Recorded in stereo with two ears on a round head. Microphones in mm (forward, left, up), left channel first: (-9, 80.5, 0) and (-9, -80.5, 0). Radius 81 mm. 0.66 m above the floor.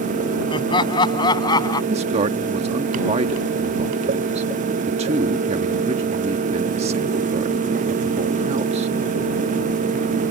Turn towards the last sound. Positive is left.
turn(degrees=-35)  # may be behind; listen again after turning